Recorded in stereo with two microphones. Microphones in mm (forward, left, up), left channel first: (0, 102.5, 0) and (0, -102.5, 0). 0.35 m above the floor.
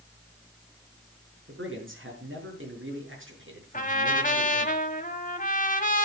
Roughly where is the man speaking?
Right.